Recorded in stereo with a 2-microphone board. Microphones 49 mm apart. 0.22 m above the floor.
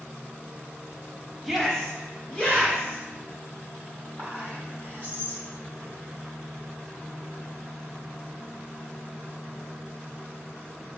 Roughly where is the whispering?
Left.